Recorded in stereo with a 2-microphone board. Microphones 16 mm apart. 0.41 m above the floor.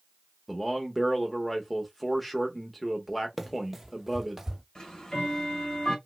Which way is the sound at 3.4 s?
10° right (ahead or behind).